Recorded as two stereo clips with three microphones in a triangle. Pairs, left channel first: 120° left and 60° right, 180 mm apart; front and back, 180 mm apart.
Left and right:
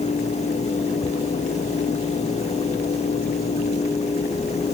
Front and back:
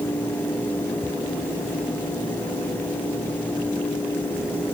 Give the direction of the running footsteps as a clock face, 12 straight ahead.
No running footsteps in this recording.